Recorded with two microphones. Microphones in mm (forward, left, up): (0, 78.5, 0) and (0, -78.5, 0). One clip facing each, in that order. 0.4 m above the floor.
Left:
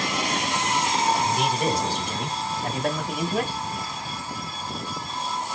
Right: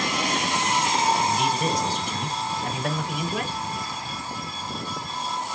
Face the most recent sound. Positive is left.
turn(degrees=30)  # may be behind; listen again after turning